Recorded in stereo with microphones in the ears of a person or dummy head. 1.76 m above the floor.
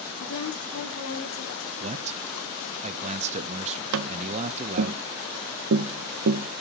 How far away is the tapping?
About 0.7 m.